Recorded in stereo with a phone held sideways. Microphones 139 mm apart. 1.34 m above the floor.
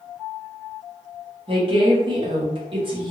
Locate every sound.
1.5 s a woman speaking: 40° right (ahead or behind), 1.2 m